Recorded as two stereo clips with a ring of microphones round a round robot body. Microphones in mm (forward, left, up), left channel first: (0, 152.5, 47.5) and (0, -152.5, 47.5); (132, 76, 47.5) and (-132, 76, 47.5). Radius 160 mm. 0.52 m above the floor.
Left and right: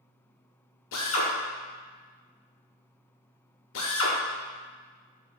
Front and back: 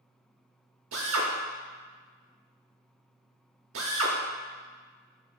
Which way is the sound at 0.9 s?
140° left.